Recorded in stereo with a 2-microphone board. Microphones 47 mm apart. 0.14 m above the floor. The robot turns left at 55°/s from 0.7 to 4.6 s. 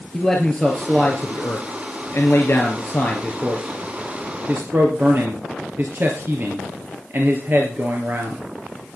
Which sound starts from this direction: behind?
A man speaking, at 0.1 s.